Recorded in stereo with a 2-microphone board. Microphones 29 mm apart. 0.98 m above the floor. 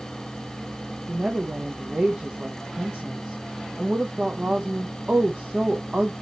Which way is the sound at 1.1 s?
35° right (ahead or behind).